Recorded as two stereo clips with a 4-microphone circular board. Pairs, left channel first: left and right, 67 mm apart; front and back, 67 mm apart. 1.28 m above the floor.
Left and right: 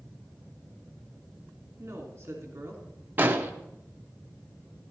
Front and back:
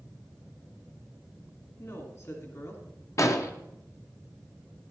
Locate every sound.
1.8 s a woman speaking: 40° right, 2.5 m
3.2 s an explosion: 30° right, 0.7 m